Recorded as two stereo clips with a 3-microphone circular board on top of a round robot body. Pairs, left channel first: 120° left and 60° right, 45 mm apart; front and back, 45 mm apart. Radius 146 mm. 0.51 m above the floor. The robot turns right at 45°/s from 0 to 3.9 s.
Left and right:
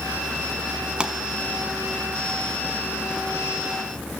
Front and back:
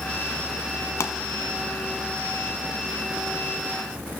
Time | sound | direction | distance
1.0 | a pop | 5° left | 1.0 m